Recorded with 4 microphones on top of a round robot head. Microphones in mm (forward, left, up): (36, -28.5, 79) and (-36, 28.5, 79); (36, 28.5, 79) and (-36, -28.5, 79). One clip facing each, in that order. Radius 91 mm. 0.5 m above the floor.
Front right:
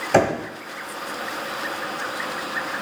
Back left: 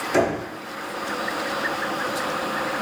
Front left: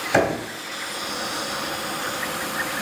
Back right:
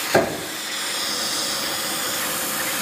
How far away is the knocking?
About 3 m.